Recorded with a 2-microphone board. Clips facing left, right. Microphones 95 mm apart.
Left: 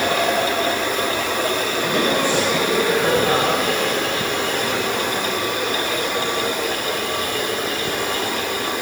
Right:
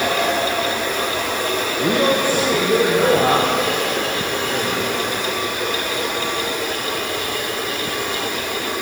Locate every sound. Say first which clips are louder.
1.8 s a man speaking: right 3 dB; 45° right (ahead or behind), 5.5 m; by 5.2 s 55° right (ahead or behind), 7.5 m